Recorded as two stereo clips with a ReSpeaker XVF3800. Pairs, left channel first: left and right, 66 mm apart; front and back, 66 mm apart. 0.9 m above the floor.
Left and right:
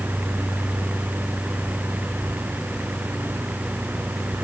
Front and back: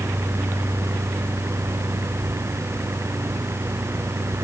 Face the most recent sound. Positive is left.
No sound to turn to.